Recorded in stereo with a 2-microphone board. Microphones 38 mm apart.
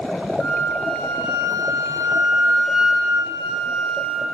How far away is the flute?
About 0.8 m.